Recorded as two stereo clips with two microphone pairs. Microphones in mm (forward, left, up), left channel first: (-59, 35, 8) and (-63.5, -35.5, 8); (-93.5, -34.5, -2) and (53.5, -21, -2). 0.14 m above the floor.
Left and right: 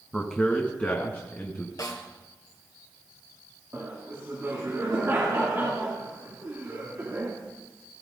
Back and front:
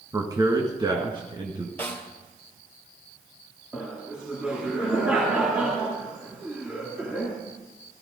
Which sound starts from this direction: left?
A snare drum, at 1.8 s.